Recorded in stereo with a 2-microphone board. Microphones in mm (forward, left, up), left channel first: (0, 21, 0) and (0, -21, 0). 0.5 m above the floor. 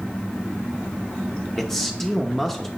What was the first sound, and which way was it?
A man speaking, 10° left (ahead or behind).